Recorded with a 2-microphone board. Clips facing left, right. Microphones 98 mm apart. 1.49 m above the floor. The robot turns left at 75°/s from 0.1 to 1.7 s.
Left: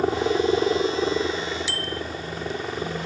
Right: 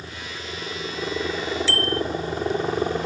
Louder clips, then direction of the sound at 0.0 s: Left 16 dB; 100° left.